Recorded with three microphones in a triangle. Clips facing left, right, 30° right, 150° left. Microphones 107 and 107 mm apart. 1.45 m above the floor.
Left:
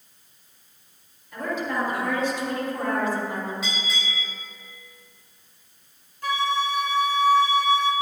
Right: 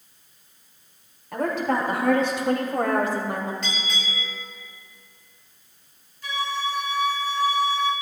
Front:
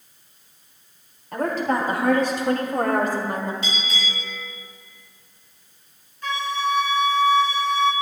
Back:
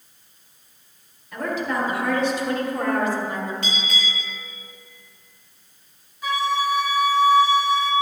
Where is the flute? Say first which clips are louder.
Left 4 dB, back 2 dB; 70° left, 2.5 m.